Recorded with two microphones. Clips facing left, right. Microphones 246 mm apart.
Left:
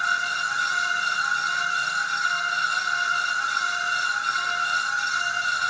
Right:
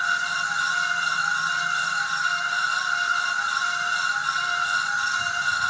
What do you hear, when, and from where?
0.0 s an insect: 70° right (ahead or behind), 1.9 m